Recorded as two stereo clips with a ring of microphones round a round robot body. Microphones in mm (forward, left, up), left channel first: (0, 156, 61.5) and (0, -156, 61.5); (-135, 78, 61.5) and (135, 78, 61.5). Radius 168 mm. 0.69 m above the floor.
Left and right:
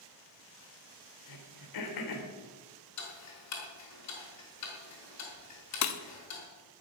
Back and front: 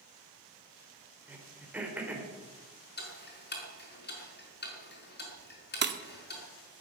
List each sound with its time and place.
1.3 s throat clearing: 85° left, 3 m
3.0 s ticking: 125° left, 5 m
5.8 s breaking glass: 50° left, 1.3 m